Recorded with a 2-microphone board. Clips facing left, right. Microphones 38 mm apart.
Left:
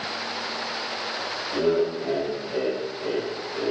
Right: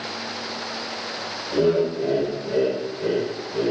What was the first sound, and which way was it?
Laughter, 35° right (ahead or behind).